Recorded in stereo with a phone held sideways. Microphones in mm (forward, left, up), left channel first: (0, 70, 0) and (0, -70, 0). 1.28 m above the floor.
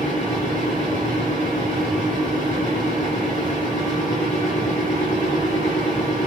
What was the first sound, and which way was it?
A fan, 70° right (ahead or behind).